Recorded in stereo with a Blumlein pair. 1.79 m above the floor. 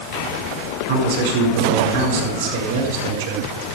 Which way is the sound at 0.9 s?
60° right.